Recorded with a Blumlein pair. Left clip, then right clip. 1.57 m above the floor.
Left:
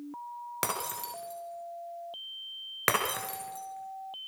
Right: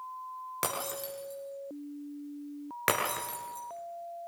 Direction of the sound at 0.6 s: 5° left.